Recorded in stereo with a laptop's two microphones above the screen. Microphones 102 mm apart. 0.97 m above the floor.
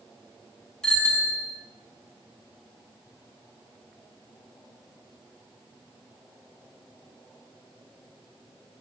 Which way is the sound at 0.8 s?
5° left (ahead or behind).